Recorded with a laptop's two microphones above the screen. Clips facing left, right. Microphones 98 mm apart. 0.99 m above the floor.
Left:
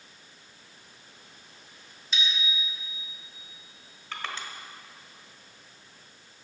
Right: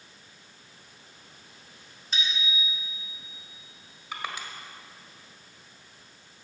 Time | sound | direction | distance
2.1 | a bicycle bell | 45° right (ahead or behind) | 2.5 m
4.1 | crushing | 15° right (ahead or behind) | 1.5 m